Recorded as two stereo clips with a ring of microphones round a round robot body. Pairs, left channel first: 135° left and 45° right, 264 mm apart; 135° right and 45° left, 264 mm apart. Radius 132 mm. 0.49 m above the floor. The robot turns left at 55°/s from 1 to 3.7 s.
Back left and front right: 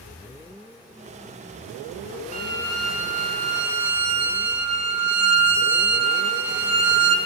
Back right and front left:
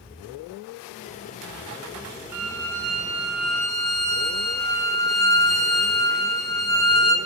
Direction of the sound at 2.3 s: 20° left.